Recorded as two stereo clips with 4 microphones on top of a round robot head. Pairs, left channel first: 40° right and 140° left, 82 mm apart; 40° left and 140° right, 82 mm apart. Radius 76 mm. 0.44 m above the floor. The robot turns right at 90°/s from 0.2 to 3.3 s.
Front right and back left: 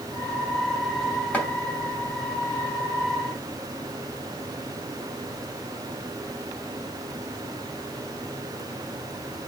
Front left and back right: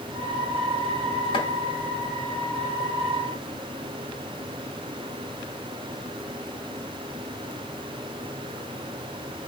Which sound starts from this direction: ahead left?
Chopping, at 1.3 s.